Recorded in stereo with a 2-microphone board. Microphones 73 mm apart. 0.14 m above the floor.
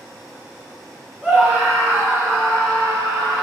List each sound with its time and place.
1.2 s a scream: 25° right (ahead or behind), 2.5 m; by 3.4 s 50° right (ahead or behind), 3 m